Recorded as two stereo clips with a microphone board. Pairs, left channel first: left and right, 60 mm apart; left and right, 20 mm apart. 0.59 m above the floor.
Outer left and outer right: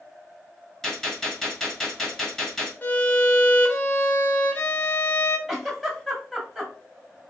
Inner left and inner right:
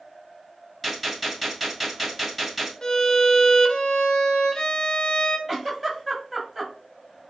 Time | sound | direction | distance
0.8 | a gunshot | 5° left (ahead or behind) | 2.5 m
2.8 | a violin | 35° left (ahead or behind) | 0.7 m
5.5 | a giggle | 5° right (ahead or behind) | 1.8 m